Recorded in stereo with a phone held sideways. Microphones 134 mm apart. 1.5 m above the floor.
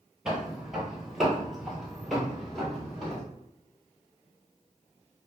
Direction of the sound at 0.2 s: 5° right (ahead or behind).